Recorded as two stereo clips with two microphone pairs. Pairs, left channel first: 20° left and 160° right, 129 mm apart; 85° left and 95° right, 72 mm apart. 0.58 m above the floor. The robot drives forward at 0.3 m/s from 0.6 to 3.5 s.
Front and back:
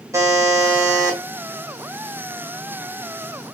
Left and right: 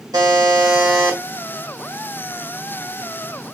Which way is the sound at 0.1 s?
90° right.